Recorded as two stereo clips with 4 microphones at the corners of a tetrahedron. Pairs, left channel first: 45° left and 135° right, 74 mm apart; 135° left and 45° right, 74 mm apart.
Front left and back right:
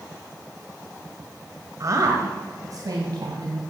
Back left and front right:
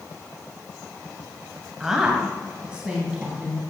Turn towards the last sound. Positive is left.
turn(degrees=-115)